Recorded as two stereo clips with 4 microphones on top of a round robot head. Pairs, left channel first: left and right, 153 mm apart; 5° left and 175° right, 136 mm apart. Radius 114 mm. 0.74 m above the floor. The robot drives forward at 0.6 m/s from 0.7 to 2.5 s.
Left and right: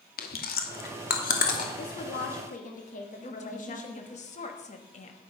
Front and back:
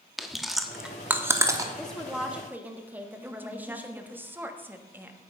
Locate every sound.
0.2 s chewing: 100° left, 1.2 m; by 1.7 s 125° left, 1.4 m
1.8 s a woman speaking: 90° left, 1.3 m; by 4.2 s 110° left, 1.3 m
3.2 s a woman speaking: 115° left, 1.4 m